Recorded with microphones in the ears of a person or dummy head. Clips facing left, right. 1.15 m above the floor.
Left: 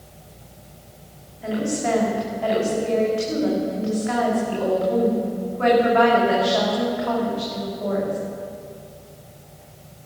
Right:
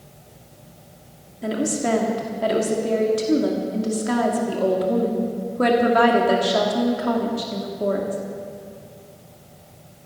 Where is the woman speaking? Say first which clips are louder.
Right 1 dB; 50° right (ahead or behind), 2.5 m.